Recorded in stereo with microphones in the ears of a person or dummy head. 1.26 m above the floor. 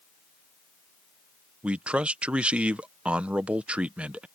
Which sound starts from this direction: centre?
A man speaking, at 1.6 s.